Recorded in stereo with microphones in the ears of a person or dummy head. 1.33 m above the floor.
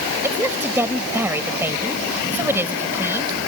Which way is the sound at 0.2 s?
10° right (ahead or behind).